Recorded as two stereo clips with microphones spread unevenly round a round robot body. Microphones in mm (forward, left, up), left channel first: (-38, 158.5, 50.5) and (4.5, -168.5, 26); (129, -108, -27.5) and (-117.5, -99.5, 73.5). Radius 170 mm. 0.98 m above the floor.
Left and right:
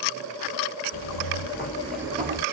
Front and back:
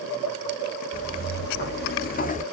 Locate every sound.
0.9 s footsteps: 75° left, 1.8 m; by 2.4 s 85° right, 1.1 m